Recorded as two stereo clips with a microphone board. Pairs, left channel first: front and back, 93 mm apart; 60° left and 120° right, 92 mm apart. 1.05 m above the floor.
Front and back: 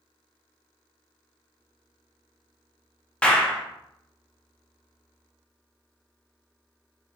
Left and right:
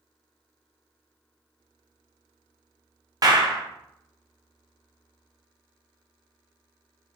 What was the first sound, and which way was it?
A clap, 75° right.